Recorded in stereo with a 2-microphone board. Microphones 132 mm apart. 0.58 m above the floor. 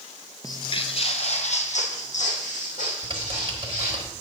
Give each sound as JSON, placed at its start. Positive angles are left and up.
{"t": 0.4, "sound": "footsteps", "side_deg": 25, "distance_m": 0.6}
{"t": 3.0, "sound": "typing on a keyboard", "side_deg": -35, "distance_m": 1.4}